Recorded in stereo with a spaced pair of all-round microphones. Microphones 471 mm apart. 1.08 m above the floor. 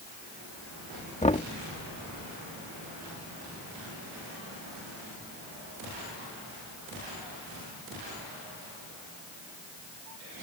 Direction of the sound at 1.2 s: 15° left (ahead or behind).